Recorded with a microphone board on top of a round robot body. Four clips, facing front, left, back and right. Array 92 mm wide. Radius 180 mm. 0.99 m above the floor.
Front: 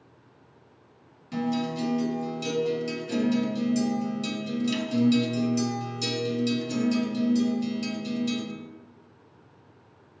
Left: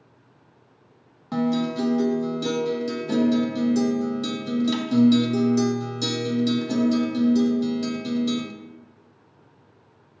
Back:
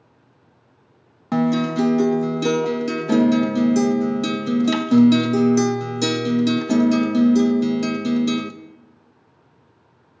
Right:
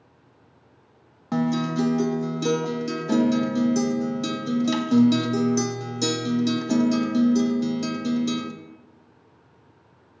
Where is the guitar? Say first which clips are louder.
Even, back 9 dB; 170° right, 0.6 m.